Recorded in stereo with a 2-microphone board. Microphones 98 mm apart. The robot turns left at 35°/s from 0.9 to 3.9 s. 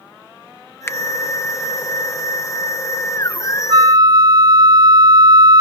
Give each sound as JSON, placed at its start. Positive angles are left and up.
{"t": 0.9, "sound": "a finger snap", "side_deg": 30}
{"t": 3.7, "sound": "a flute", "side_deg": -40}